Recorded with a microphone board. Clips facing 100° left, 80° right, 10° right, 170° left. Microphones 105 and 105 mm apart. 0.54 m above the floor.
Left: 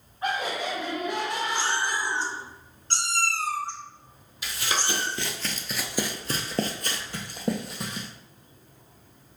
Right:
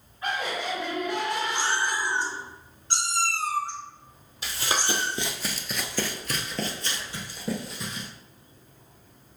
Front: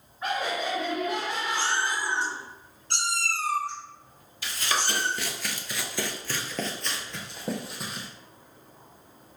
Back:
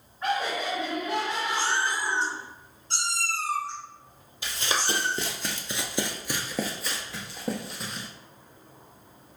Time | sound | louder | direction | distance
0.2 | laughter | left 1 dB, back 1 dB | 75° left | 1.3 m
1.6 | a cat meowing | even, even | 5° right | 1.3 m
4.4 | running footsteps | right 1 dB, even | 130° right | 1.0 m